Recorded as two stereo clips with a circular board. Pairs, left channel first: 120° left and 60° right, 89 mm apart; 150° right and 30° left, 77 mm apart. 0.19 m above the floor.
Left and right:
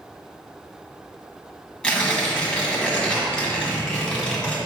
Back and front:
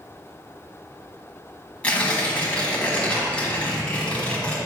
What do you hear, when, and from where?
1.8 s tearing paper: 175° left, 1.5 m